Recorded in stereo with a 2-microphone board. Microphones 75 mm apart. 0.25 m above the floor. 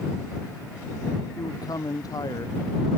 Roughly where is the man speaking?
Left.